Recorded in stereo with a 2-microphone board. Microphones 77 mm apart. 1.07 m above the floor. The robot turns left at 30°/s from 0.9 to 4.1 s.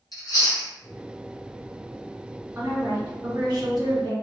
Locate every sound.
0.1 s chewing: 55° left (ahead or behind), 1.2 m
2.5 s a woman speaking: 35° right, 1.4 m; by 4.1 s 80° right, 1.4 m